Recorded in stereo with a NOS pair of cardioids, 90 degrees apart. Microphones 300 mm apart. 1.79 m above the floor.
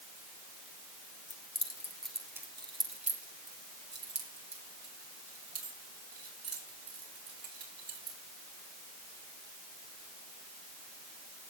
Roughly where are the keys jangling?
Ahead left.